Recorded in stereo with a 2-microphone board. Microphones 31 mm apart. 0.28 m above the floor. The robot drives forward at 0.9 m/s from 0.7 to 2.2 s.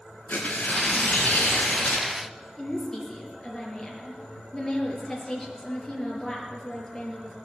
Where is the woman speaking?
15° left (ahead or behind), 4.5 m.